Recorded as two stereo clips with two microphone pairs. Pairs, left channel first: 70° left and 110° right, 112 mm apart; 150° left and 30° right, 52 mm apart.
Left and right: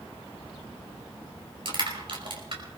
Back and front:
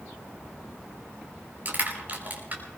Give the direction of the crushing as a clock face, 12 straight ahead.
3 o'clock.